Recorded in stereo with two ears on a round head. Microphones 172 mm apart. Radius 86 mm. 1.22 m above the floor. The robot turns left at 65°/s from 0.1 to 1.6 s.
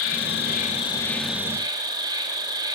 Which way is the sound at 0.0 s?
75° left.